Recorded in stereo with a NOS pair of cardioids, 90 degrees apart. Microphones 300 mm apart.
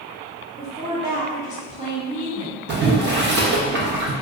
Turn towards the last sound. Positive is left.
turn(degrees=-35)